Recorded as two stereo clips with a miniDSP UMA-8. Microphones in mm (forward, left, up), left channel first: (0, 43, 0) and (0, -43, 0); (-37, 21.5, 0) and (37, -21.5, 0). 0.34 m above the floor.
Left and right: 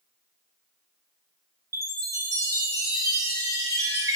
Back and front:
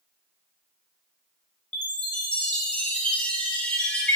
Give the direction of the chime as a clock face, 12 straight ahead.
4 o'clock.